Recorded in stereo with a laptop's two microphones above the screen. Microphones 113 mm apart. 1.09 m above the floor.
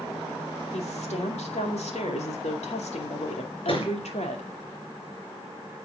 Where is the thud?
55° left (ahead or behind), 3.5 m.